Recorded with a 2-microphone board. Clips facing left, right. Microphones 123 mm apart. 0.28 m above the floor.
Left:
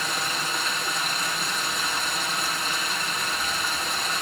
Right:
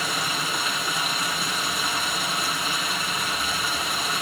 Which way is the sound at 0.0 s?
5° right (ahead or behind).